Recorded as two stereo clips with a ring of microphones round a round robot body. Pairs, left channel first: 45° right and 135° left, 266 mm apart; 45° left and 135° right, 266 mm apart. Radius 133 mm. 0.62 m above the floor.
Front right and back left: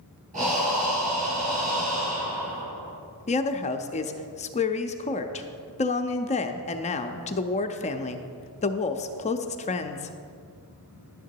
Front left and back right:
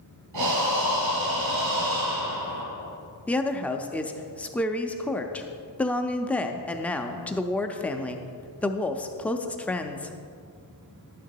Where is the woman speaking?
30° right, 0.5 m.